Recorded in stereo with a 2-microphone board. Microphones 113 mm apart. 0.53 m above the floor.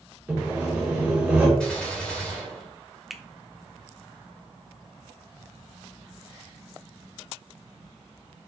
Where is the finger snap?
Centre (ahead or behind), 0.7 m.